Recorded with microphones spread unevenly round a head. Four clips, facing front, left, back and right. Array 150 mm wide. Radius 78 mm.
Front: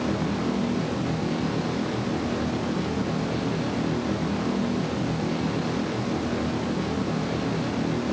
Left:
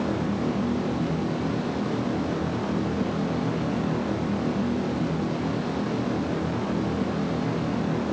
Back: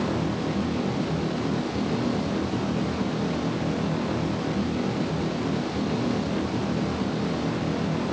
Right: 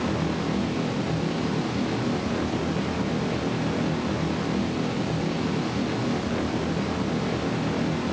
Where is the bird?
I don't hear a bird.